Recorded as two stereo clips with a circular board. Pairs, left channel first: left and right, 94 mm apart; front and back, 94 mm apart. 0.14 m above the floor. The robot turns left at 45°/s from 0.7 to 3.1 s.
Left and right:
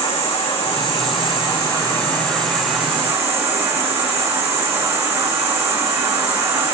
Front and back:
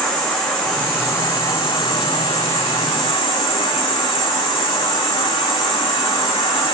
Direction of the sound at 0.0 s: 85° left.